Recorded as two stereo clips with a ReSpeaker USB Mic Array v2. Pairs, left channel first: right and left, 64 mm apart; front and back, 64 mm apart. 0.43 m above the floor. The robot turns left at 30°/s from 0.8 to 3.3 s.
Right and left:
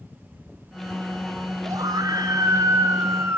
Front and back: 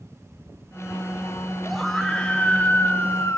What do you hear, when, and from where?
1.6 s a scream: 90° left, 2.5 m; by 3.4 s 45° left, 2.5 m